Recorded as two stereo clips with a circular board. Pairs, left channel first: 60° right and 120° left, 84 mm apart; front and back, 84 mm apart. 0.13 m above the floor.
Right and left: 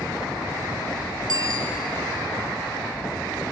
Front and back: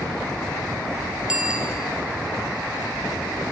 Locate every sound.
1.3 s a bicycle bell: 100° left, 2 m